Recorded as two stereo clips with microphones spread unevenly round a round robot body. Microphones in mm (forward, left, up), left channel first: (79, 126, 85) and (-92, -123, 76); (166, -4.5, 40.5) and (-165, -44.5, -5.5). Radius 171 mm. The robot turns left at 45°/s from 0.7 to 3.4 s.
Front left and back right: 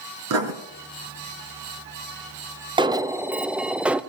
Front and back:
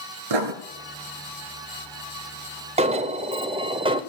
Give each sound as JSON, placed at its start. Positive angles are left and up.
{"t": 0.3, "sound": "writing", "azimuth_deg": -165, "distance_m": 1.5}
{"t": 2.8, "sound": "an alarm", "azimuth_deg": -175, "distance_m": 0.6}